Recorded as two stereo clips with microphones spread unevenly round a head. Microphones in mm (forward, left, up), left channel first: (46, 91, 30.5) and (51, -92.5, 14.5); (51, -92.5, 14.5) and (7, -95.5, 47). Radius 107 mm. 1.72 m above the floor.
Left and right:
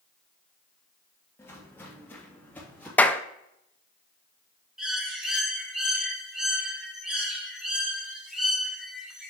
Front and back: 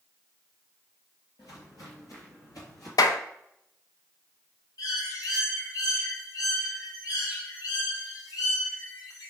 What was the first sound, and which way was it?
Footsteps, 20° left.